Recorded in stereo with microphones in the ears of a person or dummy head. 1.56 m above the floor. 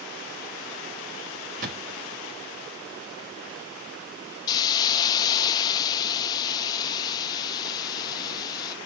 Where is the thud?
45° right (ahead or behind), 1.4 m.